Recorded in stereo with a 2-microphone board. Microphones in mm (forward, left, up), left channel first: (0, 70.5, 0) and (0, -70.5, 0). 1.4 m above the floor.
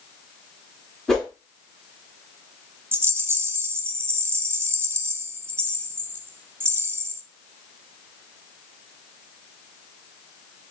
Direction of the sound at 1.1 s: 5° left (ahead or behind).